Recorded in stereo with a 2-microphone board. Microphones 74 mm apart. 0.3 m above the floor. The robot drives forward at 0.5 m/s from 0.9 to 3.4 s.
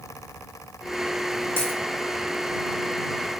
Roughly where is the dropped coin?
Right.